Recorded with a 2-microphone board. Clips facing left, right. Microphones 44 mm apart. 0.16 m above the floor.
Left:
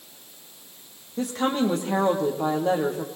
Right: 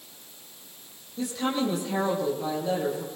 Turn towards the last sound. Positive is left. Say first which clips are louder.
# left 3 dB
turn(degrees=45)  # may be behind; listen again after turning